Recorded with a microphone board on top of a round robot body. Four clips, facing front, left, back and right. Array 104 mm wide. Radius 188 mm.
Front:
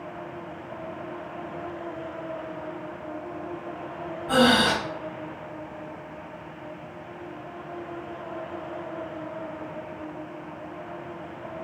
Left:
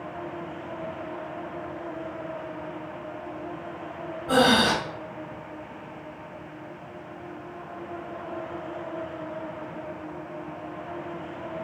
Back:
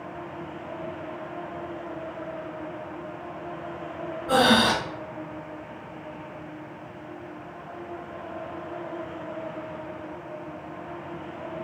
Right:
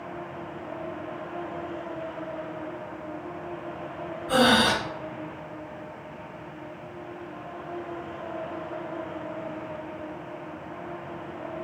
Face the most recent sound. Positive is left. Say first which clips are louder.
# left 1 dB, even
turn(degrees=135)